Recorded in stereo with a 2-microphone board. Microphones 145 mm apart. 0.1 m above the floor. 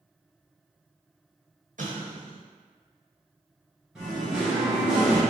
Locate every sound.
1.8 s an explosion: 75° right (ahead or behind), 1.1 m
4.0 s singing: 5° right (ahead or behind), 1.5 m